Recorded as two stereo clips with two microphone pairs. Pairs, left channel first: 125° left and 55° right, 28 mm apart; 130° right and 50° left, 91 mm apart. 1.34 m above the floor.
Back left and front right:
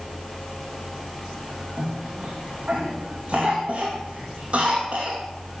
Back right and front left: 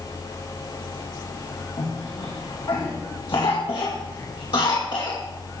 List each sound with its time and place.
1.8 s a cough: 100° right, 2.5 m